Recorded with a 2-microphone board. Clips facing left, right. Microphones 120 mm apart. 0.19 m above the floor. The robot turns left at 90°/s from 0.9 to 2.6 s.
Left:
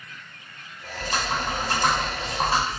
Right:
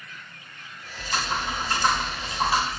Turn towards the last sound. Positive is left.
turn(degrees=25)